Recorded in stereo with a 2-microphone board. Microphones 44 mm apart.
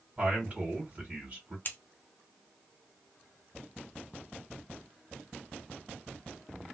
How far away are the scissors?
About 0.6 m.